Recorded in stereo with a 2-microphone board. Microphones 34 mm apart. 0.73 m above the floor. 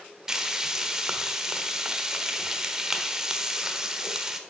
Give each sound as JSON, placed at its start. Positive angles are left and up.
{"t": 0.3, "sound": "frying", "side_deg": -20, "distance_m": 1.1}